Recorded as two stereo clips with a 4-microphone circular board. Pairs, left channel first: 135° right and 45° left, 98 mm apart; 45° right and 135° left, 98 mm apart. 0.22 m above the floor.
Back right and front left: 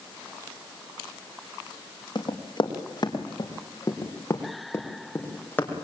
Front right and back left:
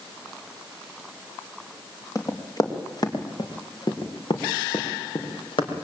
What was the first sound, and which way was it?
Running footsteps, 100° right.